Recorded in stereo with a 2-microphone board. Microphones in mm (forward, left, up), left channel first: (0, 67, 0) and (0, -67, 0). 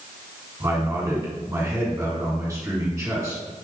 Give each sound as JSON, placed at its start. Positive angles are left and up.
{"t": 0.6, "sound": "a man speaking", "side_deg": -25, "distance_m": 1.8}